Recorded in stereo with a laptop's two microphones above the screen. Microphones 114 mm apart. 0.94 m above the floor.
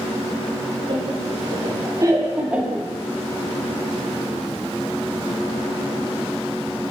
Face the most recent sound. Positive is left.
turn(degrees=0)  # may be behind; listen again after turning